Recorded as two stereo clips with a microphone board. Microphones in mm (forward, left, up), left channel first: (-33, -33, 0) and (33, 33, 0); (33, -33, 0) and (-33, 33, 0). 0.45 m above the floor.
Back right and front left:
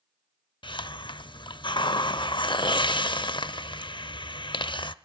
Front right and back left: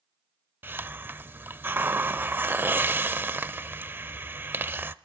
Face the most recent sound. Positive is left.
turn(degrees=-160)